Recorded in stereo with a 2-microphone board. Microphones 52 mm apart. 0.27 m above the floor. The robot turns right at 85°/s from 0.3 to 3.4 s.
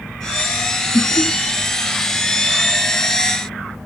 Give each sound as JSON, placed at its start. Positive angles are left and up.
{"t": 0.9, "sound": "laughter", "side_deg": 40, "distance_m": 1.3}